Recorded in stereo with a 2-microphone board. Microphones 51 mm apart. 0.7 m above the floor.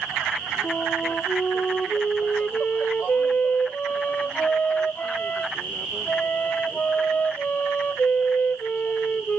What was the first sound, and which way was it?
A flute, 30° left (ahead or behind).